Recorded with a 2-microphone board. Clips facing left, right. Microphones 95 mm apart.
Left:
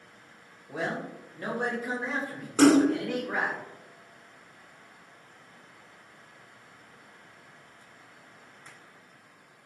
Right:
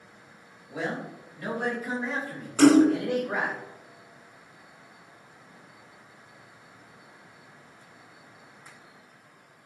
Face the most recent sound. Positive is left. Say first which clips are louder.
# right 2 dB
turn(degrees=40)  # may be behind; listen again after turning